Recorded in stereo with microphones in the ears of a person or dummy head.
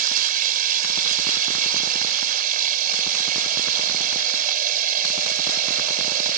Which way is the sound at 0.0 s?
50° right (ahead or behind).